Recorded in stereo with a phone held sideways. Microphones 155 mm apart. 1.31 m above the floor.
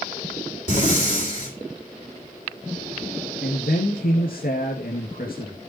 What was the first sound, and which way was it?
Breathing, 50° left (ahead or behind).